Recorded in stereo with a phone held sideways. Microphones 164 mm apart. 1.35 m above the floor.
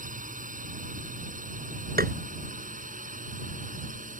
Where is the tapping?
65° right (ahead or behind).